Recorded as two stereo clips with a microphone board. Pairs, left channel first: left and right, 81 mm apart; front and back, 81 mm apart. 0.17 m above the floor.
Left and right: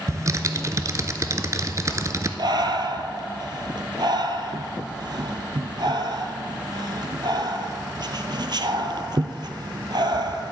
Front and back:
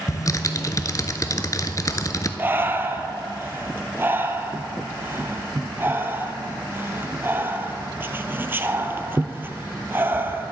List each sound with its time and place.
0.1 s typing on a keyboard: 45° right, 0.6 m
2.4 s breathing: 120° right, 0.7 m